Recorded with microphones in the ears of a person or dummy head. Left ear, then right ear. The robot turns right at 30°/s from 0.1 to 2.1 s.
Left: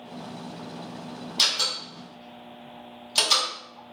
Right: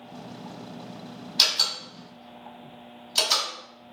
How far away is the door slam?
About 1.6 m.